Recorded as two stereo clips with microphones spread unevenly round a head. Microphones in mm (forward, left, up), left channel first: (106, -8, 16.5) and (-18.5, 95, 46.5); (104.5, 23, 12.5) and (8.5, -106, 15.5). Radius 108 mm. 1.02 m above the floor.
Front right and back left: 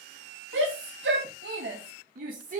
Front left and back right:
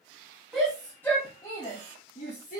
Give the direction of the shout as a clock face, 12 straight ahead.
7 o'clock.